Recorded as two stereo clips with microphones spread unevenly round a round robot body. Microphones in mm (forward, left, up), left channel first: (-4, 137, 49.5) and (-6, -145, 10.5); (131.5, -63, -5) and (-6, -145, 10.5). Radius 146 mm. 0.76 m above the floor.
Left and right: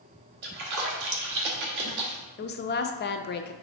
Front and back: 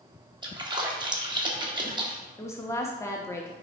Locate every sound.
0.4 s a splash: 85° right, 1.4 m
2.4 s a woman speaking: 65° left, 0.5 m